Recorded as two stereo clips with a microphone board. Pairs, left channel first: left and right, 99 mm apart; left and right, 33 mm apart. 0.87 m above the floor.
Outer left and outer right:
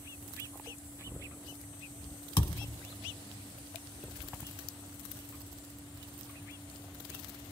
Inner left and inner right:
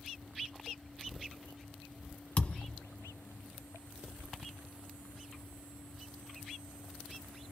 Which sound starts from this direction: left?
A thud, at 2.4 s.